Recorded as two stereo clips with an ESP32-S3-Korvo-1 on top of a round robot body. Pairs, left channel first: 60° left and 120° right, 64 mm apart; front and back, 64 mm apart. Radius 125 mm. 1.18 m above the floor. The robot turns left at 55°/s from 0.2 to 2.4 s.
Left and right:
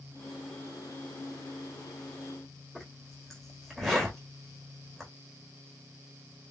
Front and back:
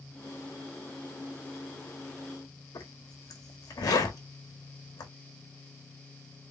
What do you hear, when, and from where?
2.8 s a zipper: 30° right, 1.1 m